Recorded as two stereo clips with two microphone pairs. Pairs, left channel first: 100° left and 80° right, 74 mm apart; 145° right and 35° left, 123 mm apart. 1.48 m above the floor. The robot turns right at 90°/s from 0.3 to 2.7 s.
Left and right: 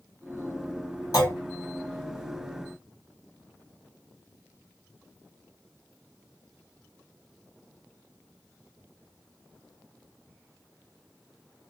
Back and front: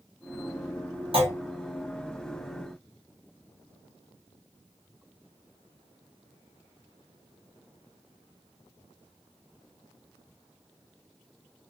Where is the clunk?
70° left, 1.3 m; by 1.3 s 90° left, 1.3 m.